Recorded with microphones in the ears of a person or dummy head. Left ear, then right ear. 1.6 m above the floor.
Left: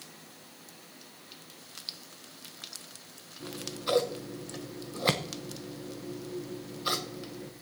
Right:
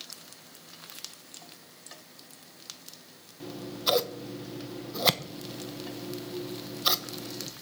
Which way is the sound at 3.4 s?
30° right (ahead or behind).